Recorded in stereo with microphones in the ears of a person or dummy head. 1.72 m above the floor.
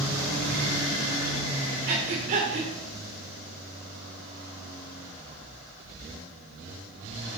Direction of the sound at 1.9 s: 40° right (ahead or behind).